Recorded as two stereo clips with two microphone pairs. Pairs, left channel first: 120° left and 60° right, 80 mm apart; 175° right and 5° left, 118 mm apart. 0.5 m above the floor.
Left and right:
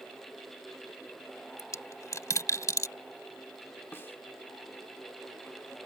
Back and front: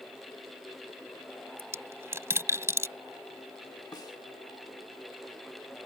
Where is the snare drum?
160° left.